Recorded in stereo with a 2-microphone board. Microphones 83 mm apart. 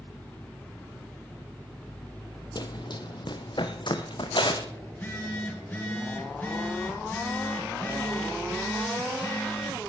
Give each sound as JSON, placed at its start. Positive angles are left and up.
{"t": 2.5, "sound": "running footsteps", "side_deg": 55, "distance_m": 1.0}
{"t": 4.9, "sound": "a phone buzzing", "side_deg": 20, "distance_m": 6.0}